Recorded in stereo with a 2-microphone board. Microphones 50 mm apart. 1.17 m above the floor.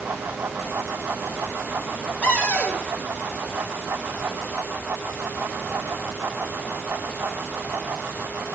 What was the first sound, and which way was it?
A cupboard door, 35° left (ahead or behind).